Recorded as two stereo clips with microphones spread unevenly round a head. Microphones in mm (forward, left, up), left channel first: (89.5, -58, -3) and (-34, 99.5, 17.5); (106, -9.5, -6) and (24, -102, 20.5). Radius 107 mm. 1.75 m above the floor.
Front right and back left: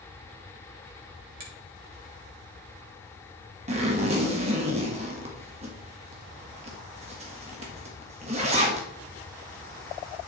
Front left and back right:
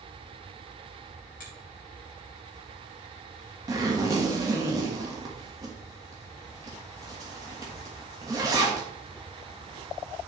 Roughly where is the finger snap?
Left.